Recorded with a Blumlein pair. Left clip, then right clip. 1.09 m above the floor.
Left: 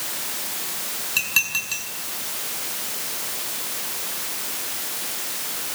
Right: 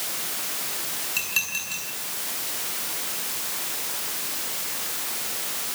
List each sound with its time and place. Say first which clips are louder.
1.2 s dishes clattering: left 5 dB; 15° left, 8 m